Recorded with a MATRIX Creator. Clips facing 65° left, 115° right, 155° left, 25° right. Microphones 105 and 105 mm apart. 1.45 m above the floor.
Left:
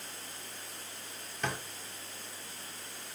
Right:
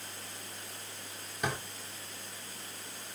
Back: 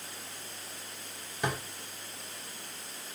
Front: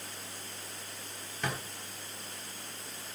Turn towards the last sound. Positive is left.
turn(degrees=-170)